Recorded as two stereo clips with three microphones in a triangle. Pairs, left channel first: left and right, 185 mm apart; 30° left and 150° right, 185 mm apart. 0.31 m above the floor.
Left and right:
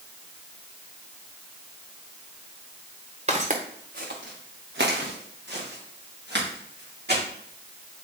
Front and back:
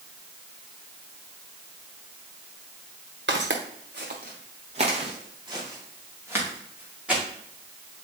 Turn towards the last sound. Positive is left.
turn(degrees=-65)